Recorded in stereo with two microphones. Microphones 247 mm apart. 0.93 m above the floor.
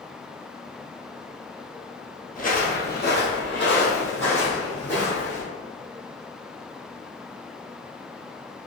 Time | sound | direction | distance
2.4 | footsteps | 35° left (ahead or behind) | 1.0 m